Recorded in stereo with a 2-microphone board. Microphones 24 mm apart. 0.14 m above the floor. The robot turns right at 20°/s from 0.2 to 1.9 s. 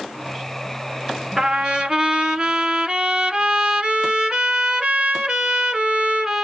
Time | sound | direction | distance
1.4 | a trumpet | 25° right (ahead or behind) | 1.3 m